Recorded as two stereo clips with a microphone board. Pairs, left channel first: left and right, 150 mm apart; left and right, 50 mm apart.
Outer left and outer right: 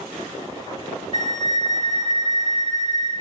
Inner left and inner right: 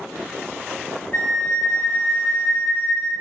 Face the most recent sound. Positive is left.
turn(degrees=35)  # may be behind; listen again after turning